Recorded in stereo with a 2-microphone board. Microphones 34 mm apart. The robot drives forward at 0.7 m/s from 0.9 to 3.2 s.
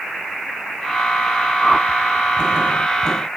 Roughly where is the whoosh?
Centre.